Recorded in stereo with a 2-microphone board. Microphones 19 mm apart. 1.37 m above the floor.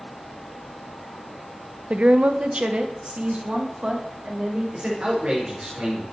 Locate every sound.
1.9 s a woman speaking: 70° right (ahead or behind), 0.5 m; by 4.6 s 50° right (ahead or behind), 3.5 m
4.7 s a man speaking: 65° right (ahead or behind), 5 m